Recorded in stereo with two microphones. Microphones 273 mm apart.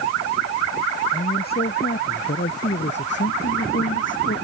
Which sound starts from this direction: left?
A man speaking, at 1.1 s.